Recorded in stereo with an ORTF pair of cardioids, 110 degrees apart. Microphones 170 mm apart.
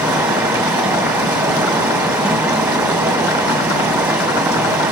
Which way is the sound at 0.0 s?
15° right.